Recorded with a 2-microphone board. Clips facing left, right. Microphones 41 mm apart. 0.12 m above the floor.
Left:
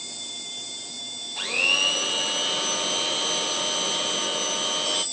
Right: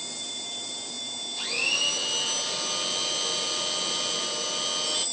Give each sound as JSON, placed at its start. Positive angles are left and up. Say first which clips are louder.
{"t": 1.4, "sound": "a blender", "louder": "left 5 dB", "side_deg": 45, "distance_m": 0.7}